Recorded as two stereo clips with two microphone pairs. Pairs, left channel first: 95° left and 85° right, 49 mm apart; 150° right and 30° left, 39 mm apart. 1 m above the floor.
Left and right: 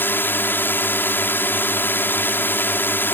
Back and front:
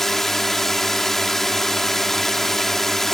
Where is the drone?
125° left.